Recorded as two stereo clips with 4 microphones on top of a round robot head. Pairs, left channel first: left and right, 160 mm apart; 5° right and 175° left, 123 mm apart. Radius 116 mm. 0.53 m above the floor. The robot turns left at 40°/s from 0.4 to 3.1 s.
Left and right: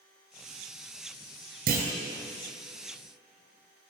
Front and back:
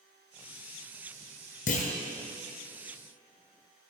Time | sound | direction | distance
1.7 | a clunk | 45° right | 2 m